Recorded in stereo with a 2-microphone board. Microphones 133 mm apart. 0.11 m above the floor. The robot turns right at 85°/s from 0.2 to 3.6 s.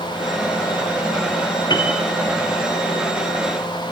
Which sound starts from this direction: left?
A piano, at 1.7 s.